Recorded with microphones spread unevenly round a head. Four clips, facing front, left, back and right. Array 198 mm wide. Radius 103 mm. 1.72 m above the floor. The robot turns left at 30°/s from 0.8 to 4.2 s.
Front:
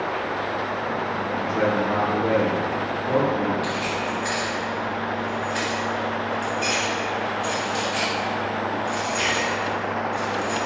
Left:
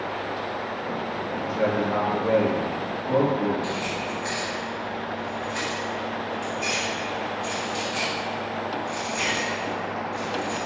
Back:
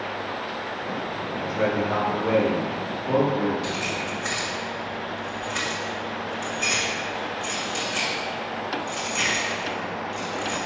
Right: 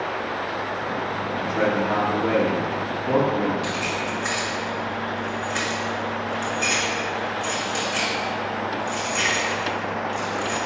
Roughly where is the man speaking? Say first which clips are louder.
Right 2 dB, front 1 dB; ahead.